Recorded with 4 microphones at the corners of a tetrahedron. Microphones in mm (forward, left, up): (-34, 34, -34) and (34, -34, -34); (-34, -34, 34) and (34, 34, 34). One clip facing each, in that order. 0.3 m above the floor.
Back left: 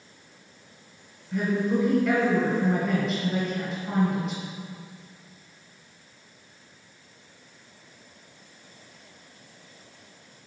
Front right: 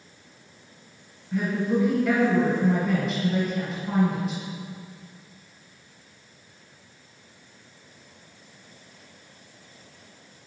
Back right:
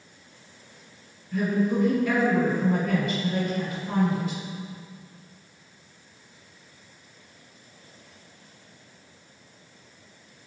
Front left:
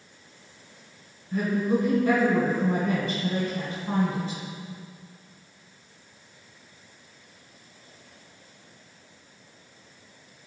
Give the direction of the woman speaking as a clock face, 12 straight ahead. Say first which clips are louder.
Even, even; 11 o'clock.